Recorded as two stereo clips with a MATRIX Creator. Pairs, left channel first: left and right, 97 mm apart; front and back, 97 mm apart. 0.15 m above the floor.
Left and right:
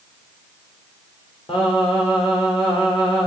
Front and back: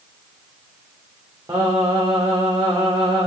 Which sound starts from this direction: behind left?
Singing, at 1.5 s.